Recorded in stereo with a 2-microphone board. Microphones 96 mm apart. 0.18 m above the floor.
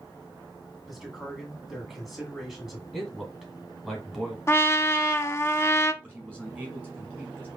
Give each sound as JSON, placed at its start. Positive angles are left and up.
{"t": 0.9, "sound": "a man speaking", "side_deg": 0, "distance_m": 1.8}
{"t": 2.9, "sound": "a man speaking", "side_deg": -5, "distance_m": 1.6}
{"t": 4.5, "sound": "a trumpet", "side_deg": 25, "distance_m": 0.5}
{"t": 6.0, "sound": "a man speaking", "side_deg": -20, "distance_m": 1.6}